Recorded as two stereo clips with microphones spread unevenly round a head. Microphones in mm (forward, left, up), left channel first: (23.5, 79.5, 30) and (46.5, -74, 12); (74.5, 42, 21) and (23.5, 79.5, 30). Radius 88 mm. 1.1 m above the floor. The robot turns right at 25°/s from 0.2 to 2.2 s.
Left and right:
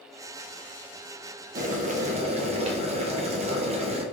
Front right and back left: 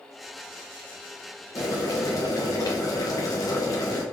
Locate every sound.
1.6 s boiling: 55° right, 0.8 m; by 4.0 s 40° right, 0.8 m